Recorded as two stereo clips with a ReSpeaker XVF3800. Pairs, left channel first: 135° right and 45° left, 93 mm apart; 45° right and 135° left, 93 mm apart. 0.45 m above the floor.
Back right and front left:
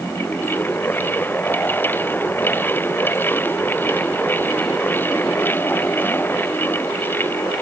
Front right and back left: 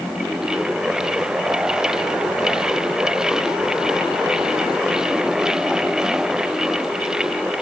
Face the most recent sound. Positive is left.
No sound to turn to.